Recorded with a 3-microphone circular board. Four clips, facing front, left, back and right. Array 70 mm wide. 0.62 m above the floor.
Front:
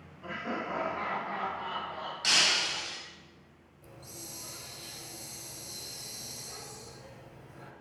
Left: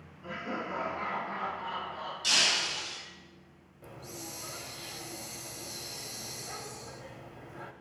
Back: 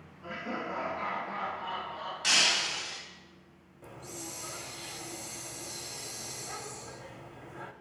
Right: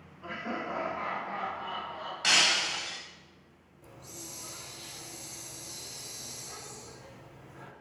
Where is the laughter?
50° right, 2.5 m; by 2.1 s 10° left, 3.5 m.